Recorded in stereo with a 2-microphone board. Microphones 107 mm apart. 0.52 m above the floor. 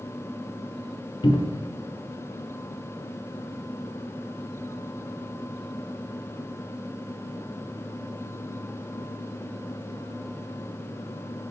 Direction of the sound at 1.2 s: 45° left (ahead or behind).